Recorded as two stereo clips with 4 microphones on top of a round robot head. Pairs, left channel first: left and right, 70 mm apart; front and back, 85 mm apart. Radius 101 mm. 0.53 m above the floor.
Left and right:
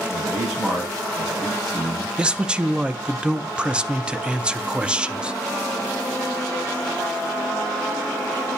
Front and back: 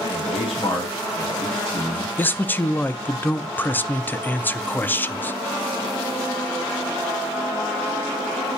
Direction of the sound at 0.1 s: 5° right.